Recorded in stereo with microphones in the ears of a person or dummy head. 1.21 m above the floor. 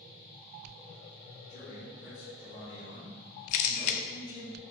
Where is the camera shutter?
45° left (ahead or behind), 0.6 m.